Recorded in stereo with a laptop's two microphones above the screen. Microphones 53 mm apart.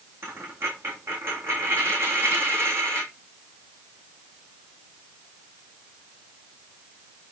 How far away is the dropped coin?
About 3.5 m.